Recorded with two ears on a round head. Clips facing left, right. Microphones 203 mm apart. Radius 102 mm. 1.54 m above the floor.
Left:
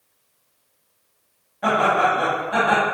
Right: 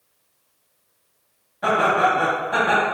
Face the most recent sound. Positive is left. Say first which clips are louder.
# even
turn(degrees=-5)  # may be behind; listen again after turning